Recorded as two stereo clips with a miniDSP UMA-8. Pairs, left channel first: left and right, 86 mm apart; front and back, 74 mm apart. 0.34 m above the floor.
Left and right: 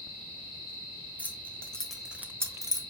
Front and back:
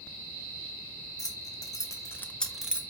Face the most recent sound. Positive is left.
turn(degrees=-110)